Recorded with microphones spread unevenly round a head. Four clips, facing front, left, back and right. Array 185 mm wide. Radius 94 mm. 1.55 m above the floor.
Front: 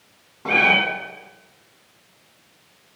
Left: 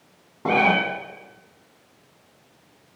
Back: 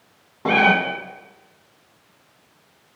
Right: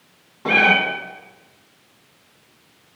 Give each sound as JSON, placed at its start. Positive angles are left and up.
{"t": 0.5, "sound": "a cat meowing", "azimuth_deg": 145, "distance_m": 1.9}